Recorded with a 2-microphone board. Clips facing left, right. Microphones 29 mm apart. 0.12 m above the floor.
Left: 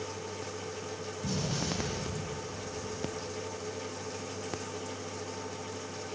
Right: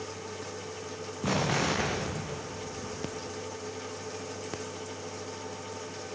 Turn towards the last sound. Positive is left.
turn(degrees=-80)